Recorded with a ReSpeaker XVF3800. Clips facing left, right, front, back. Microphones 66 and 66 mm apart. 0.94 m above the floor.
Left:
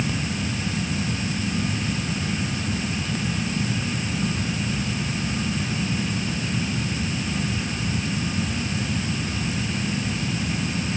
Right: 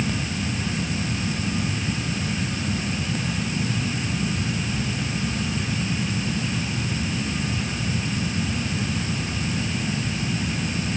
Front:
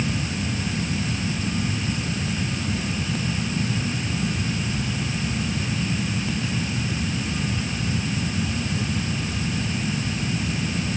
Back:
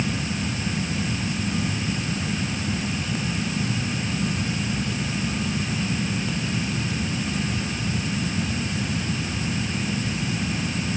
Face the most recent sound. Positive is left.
No sound to turn to.